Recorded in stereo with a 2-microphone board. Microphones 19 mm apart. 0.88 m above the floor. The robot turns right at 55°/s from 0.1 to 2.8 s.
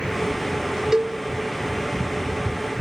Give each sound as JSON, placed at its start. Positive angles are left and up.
{"t": 0.9, "sound": "a cowbell", "side_deg": -30, "distance_m": 0.5}